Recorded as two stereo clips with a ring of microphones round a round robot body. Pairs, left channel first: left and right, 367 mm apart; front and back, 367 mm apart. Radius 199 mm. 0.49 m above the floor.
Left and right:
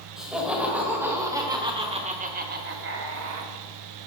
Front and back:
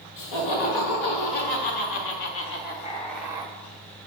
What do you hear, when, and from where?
0.2 s laughter: straight ahead, 1.8 m; by 3.5 s 115° right, 0.8 m